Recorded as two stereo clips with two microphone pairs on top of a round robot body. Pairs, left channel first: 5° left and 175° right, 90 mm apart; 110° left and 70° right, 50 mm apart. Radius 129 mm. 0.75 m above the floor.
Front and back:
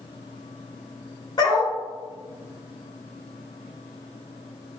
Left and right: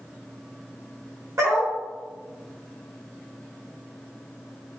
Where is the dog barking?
40° right, 1.1 m.